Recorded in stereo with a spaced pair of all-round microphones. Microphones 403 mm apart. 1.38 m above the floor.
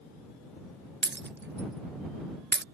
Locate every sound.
1.0 s breaking glass: 25° right (ahead or behind)